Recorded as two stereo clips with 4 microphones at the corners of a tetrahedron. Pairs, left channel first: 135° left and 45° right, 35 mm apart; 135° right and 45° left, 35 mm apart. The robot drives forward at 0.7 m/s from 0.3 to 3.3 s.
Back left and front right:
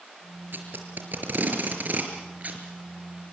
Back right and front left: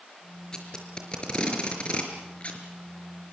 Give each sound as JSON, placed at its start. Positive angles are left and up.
{"t": 0.5, "sound": "tape being pulled", "azimuth_deg": -70, "distance_m": 5.0}